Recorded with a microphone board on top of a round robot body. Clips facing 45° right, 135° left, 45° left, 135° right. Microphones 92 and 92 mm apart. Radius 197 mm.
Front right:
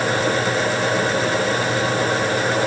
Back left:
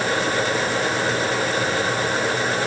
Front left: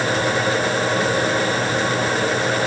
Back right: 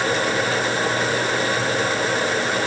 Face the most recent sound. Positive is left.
No sound to turn to.